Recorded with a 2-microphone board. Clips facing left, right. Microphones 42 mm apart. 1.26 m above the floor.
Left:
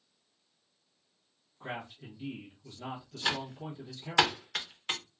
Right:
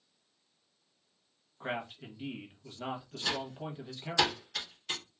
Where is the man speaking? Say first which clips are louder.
Right 3 dB; 35° right (ahead or behind), 1.1 m.